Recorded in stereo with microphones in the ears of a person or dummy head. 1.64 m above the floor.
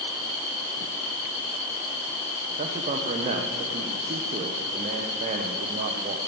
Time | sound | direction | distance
2.6 | a man speaking | 45° right (ahead or behind) | 1.0 m